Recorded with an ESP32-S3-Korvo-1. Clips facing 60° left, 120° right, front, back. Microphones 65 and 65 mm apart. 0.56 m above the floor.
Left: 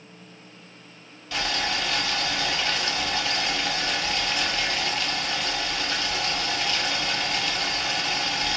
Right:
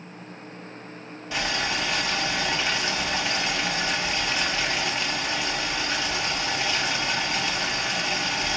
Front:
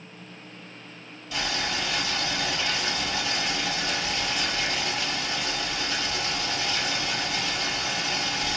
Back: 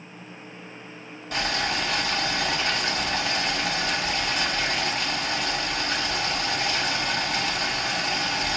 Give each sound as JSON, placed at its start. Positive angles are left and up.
{"t": 1.3, "sound": "boiling", "azimuth_deg": 175, "distance_m": 1.2}